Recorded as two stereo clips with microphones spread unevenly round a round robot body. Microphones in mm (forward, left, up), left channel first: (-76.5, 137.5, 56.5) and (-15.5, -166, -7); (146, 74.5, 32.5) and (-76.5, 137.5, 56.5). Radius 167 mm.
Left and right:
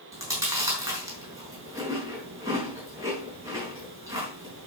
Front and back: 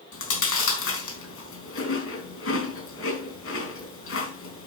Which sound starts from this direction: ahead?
Chewing, at 0.1 s.